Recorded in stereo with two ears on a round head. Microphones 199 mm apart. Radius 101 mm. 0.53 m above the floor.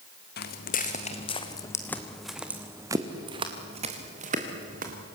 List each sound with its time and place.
0.4 s footsteps: 50° left (ahead or behind), 2 m; by 5.0 s 40° right (ahead or behind), 3.5 m